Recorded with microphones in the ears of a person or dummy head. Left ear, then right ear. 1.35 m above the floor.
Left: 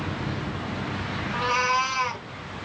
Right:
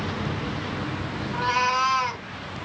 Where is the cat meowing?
Centre (ahead or behind), 0.6 m.